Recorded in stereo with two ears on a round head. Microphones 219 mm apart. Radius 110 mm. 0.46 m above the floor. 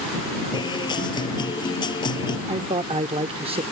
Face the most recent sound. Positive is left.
turn(degrees=-25)  # may be behind; listen again after turning